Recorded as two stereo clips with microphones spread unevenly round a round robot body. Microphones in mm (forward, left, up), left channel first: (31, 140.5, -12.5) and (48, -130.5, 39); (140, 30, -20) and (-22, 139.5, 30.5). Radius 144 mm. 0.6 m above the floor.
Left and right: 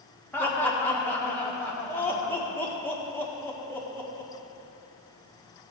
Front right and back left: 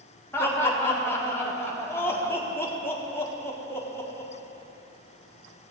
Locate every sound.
0.3 s laughter: 25° left, 1.7 m